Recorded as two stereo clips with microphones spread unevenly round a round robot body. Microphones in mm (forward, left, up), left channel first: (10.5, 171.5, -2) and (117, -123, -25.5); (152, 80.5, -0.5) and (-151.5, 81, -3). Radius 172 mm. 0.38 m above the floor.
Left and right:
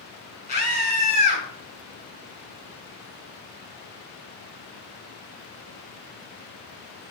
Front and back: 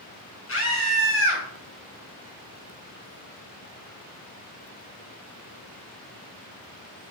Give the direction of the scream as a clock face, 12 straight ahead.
10 o'clock.